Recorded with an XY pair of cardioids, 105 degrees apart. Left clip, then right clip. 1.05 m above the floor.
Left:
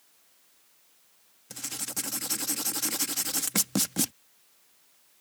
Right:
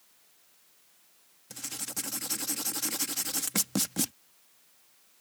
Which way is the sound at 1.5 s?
15° left.